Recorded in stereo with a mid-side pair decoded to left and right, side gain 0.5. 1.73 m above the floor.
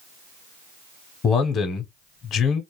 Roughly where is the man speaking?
Ahead left.